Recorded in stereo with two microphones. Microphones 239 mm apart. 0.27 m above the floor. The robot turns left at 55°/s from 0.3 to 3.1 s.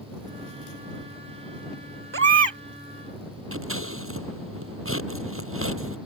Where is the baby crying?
60° right (ahead or behind); by 2.6 s 75° right (ahead or behind).